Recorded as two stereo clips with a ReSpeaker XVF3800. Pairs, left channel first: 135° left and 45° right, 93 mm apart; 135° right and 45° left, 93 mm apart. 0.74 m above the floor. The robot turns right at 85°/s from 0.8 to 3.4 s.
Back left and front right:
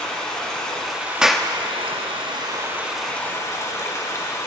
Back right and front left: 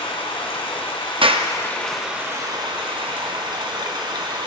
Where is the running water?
145° right, 1.8 m; by 4.5 s 80° left, 1.8 m.